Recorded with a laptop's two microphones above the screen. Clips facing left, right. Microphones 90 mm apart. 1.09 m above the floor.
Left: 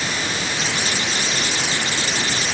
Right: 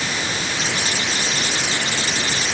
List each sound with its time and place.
Only background noise.